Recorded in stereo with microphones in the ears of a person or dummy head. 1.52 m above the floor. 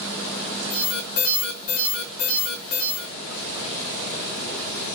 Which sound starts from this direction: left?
An alarm, at 0.7 s.